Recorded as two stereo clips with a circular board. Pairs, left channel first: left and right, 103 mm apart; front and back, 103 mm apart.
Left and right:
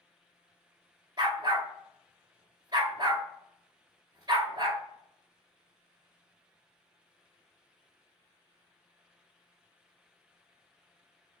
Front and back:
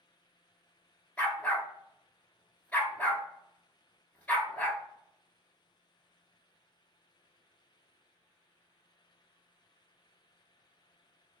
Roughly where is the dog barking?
Right.